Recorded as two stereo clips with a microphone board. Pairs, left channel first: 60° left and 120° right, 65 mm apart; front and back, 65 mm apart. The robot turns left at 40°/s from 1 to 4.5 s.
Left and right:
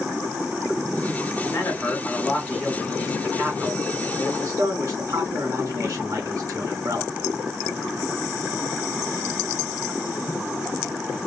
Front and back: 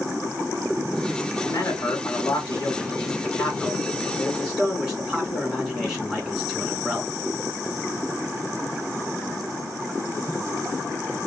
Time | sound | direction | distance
1.4 | a man speaking | 30° left | 2.5 m